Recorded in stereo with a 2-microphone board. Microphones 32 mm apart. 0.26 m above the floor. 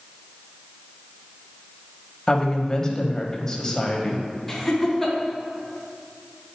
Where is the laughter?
5° left (ahead or behind), 2 m.